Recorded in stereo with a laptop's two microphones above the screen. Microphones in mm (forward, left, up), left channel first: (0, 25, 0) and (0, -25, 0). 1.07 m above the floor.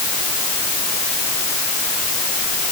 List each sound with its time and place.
Only background noise.